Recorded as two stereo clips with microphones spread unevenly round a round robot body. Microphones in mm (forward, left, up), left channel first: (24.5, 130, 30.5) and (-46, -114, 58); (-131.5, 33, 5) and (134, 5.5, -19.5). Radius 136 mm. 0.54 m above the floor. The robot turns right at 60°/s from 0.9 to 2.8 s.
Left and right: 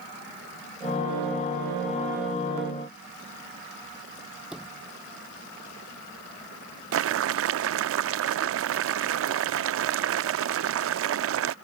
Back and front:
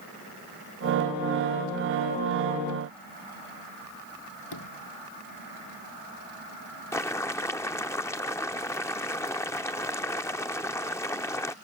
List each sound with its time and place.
4.5 s a sliding door: 165° left
6.9 s boiling: 105° right